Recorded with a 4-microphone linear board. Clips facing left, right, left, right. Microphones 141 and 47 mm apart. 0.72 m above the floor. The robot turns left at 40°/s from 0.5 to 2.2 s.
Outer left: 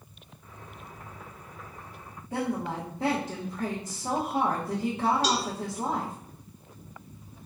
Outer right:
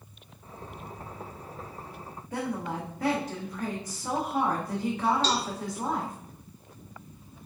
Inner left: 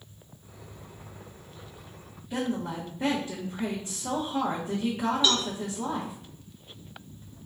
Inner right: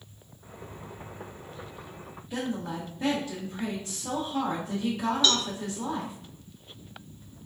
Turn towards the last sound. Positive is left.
turn(degrees=15)  # may be behind; listen again after turning